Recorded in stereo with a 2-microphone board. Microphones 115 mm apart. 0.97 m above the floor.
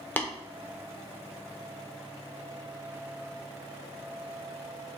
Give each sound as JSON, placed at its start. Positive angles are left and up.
{"t": 0.2, "sound": "tapping", "side_deg": 15, "distance_m": 0.6}